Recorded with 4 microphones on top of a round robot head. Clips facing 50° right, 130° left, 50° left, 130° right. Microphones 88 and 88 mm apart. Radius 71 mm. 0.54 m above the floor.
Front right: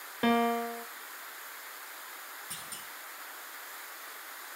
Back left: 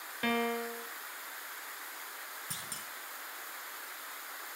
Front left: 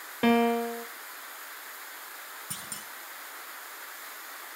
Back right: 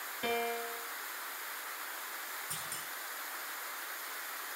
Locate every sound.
0.2 s a piano: 10° left, 0.7 m
2.5 s a clunk: 75° left, 7 m